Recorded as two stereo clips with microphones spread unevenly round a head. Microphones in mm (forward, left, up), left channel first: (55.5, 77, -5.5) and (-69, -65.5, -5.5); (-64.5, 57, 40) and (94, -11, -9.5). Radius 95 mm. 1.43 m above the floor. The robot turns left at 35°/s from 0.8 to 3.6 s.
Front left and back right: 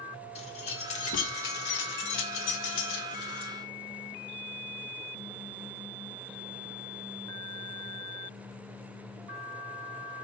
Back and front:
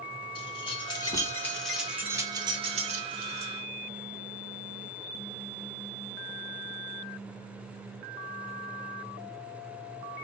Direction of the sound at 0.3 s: 105° left.